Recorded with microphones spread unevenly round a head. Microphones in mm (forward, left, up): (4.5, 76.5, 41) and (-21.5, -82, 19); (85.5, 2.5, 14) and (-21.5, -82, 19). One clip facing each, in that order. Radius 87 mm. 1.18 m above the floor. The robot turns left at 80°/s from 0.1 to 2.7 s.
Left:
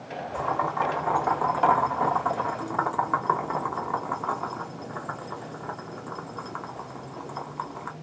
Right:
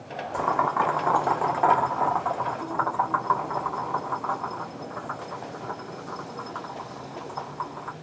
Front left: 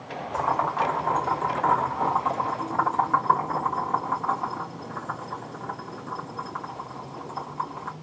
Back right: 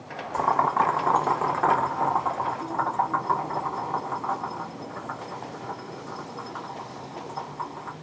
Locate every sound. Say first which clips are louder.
0.3 s boiling: right 3 dB, back right 2 dB; 80° right, 1.2 m; by 7.9 s 90° left, 1.2 m